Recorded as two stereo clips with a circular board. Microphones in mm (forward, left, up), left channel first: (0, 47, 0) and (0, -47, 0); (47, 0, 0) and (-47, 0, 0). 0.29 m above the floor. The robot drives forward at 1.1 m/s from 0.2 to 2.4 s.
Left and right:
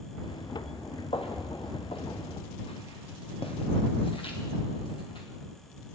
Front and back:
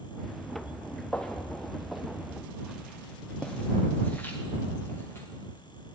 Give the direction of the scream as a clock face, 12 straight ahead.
No scream in this recording.